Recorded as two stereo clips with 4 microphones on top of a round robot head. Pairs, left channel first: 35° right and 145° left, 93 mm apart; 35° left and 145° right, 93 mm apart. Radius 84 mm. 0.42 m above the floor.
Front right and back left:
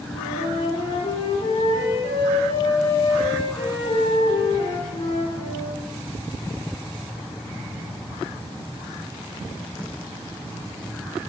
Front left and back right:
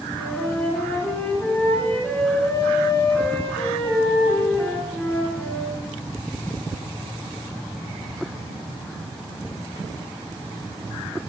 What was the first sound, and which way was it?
A flute, 40° right.